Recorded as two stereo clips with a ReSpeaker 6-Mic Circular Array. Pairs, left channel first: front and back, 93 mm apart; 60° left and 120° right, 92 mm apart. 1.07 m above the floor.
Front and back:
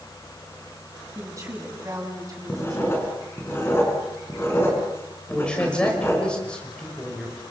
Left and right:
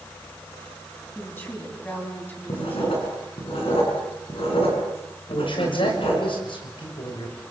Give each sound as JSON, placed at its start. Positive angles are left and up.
{"t": 1.1, "sound": "a woman speaking", "azimuth_deg": 125, "distance_m": 10.0}
{"t": 2.5, "sound": "writing", "azimuth_deg": 65, "distance_m": 7.5}
{"t": 5.3, "sound": "a man speaking", "azimuth_deg": 80, "distance_m": 5.0}